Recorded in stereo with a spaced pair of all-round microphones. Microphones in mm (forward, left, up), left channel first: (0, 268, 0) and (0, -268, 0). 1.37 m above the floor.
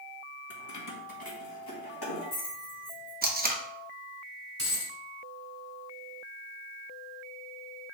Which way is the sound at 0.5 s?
30° left (ahead or behind).